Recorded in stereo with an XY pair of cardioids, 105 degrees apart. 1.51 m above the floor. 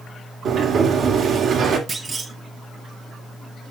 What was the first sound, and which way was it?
A sliding door, 65° right.